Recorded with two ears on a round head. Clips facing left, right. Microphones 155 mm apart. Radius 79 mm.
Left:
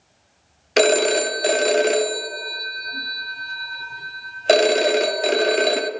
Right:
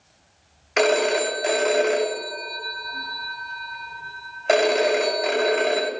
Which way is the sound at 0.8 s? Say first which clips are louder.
Left 3 dB; 40° left (ahead or behind).